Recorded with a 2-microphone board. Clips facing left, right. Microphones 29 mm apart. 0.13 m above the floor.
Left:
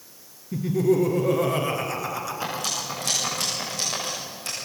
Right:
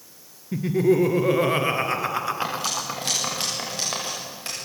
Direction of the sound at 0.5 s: 35° right (ahead or behind).